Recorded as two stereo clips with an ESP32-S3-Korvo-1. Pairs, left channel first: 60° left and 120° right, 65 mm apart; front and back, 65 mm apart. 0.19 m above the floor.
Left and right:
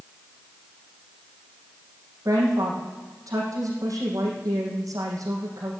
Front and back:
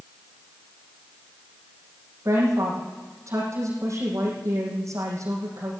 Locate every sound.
2.2 s a woman speaking: 145° right, 6.5 m